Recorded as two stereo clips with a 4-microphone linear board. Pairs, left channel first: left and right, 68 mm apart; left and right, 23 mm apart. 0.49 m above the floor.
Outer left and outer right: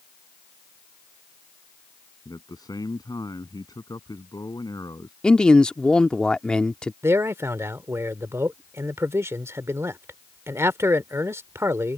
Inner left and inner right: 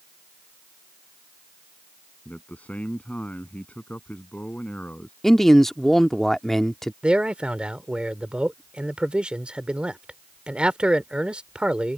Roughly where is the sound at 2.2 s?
Left.